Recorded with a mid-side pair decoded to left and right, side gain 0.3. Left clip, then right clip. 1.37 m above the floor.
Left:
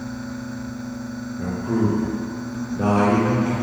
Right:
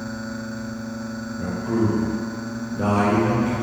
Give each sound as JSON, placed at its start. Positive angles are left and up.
{"t": 1.4, "sound": "a man speaking", "azimuth_deg": 5, "distance_m": 0.9}